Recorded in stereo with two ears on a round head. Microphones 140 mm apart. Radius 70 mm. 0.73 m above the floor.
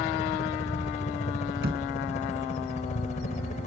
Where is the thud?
75° right (ahead or behind).